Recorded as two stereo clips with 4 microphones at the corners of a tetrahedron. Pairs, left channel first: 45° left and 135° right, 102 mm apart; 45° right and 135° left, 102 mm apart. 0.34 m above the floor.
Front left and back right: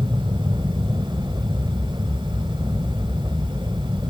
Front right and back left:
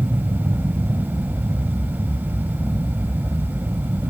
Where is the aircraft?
165° right.